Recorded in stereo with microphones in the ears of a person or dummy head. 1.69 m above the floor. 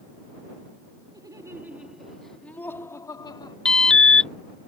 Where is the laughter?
15° right (ahead or behind); by 3.5 s 25° left (ahead or behind).